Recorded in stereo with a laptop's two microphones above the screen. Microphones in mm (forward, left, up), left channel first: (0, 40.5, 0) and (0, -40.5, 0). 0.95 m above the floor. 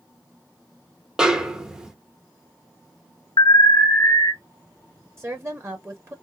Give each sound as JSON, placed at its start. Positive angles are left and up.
{"t": 1.2, "sound": "a snare drum", "side_deg": -5, "distance_m": 0.6}
{"t": 3.4, "sound": "an alarm", "side_deg": 70, "distance_m": 0.8}
{"t": 5.2, "sound": "a woman speaking", "side_deg": -35, "distance_m": 1.7}